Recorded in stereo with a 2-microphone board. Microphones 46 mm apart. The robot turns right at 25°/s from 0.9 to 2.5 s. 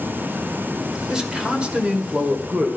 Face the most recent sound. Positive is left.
turn(degrees=-120)